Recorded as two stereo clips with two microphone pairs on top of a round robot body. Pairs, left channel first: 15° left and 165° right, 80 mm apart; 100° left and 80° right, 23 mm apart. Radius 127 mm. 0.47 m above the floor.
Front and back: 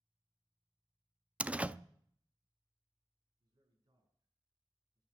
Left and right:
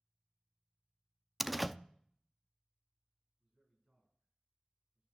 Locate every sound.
1.4 s a door slam: 155° right, 0.8 m
3.4 s a man speaking: 130° right, 7.5 m